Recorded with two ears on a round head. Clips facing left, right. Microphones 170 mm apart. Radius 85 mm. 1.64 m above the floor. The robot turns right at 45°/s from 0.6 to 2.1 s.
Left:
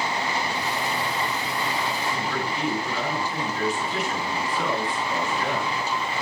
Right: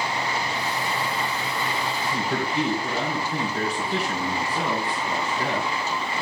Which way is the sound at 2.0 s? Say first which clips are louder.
Right 1 dB; 30° right (ahead or behind).